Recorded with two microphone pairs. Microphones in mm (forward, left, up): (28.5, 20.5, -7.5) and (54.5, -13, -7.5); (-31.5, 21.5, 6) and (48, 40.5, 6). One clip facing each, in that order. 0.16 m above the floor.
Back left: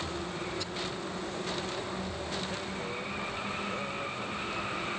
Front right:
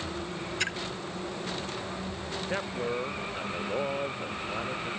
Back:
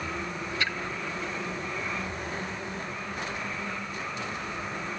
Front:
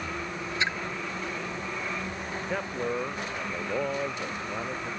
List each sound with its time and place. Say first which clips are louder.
0.6 s a splash: front right 7 dB, front 2 dB; 50° right
2.5 s a man speaking: front right 5 dB, front 6 dB; straight ahead